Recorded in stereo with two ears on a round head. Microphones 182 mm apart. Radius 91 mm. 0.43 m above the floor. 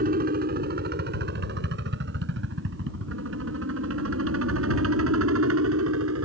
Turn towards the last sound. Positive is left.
turn(degrees=-75)  # may be behind; listen again after turning